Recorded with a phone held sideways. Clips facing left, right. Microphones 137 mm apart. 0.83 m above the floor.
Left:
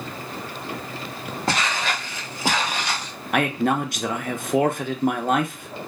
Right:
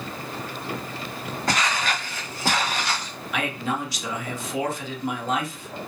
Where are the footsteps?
30° left (ahead or behind), 0.9 m; by 3.1 s 10° left (ahead or behind), 1.6 m.